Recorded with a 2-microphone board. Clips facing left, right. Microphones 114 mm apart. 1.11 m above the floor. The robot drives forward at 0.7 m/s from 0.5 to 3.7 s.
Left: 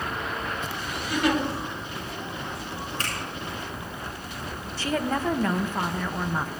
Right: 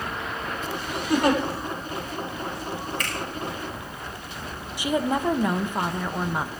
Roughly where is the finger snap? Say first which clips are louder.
Right 1 dB; left.